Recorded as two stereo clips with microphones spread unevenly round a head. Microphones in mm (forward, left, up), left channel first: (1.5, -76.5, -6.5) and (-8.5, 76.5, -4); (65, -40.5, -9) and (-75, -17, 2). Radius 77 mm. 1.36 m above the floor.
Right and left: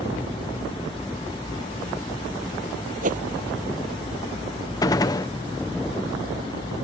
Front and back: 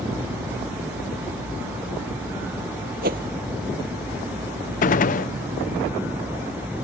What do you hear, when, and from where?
3.0 s a whoosh: 135° left
4.8 s a gunshot: 20° right